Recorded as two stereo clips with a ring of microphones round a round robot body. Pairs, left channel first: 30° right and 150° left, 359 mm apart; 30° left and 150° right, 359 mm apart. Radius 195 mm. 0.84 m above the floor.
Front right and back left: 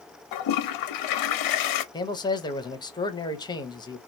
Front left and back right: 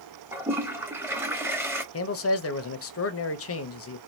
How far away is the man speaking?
About 0.9 m.